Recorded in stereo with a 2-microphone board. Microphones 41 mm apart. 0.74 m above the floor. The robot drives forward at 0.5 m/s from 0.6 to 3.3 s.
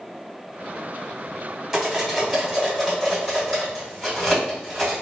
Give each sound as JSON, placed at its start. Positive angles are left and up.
{"t": 1.7, "sound": "cutlery clinking", "side_deg": -10, "distance_m": 1.5}